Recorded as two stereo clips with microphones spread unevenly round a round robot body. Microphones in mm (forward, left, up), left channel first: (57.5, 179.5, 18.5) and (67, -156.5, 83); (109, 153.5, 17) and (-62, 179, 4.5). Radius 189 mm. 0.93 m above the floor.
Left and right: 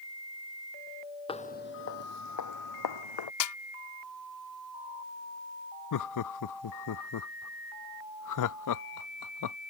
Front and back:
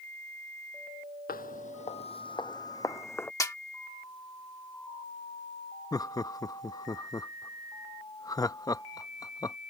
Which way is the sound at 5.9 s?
65° left.